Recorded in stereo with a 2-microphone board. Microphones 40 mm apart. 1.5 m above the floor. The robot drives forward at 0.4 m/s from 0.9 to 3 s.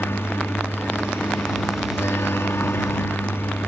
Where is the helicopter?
70° left (ahead or behind).